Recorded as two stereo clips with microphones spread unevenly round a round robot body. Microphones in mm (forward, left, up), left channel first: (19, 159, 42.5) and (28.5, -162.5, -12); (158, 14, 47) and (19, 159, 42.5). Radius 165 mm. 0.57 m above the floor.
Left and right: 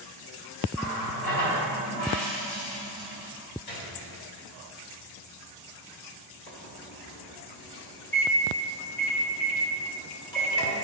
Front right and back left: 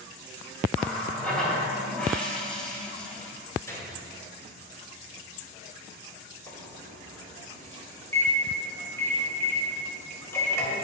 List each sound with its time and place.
0.7 s a running tap: 40° left, 2.5 m
3.7 s a gunshot: 30° left, 2.5 m
6.5 s a microwave: 30° left, 2 m